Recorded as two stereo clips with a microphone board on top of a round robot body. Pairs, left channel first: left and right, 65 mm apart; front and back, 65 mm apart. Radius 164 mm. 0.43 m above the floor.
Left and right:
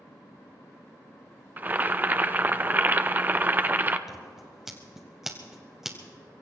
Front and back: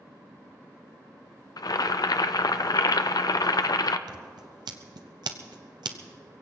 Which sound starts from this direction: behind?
Scissors, at 4.1 s.